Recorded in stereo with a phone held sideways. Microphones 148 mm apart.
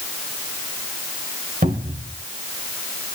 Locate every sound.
1.6 s a cupboard door: 70° right (ahead or behind), 3.5 m